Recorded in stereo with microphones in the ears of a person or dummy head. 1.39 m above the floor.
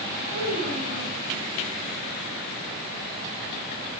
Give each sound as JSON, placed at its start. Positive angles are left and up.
{"t": 0.3, "sound": "a child speaking", "side_deg": -60, "distance_m": 4.0}